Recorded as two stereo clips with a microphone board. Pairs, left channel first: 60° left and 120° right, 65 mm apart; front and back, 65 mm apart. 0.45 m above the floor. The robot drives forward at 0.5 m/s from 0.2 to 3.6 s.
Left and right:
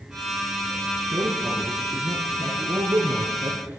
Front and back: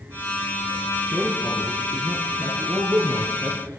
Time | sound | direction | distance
1.1 | a man speaking | 105° right | 6.5 m